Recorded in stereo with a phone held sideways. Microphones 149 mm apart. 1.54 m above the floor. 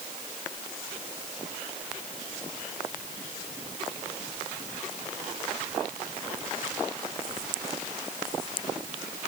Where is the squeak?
I don't hear a squeak.